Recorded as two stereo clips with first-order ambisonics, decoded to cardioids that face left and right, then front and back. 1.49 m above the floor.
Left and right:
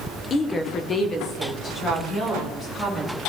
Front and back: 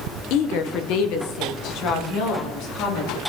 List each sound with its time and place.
0.3 s a woman speaking: 25° left, 0.8 m